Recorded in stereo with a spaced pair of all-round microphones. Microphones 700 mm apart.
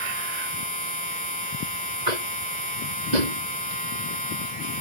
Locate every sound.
0.0 s a machine running: 10° left (ahead or behind)
2.1 s tapping: 75° right (ahead or behind)